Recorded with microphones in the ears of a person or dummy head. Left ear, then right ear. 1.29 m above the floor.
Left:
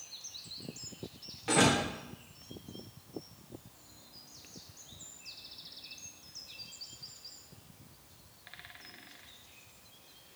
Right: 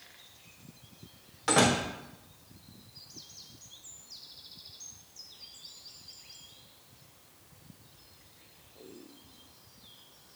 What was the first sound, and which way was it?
A door slam, 45° right (ahead or behind).